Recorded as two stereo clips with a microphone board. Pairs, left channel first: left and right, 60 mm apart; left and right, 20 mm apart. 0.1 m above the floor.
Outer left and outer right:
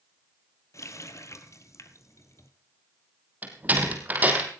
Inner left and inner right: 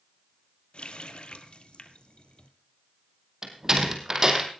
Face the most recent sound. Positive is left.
turn(degrees=-25)  # may be behind; listen again after turning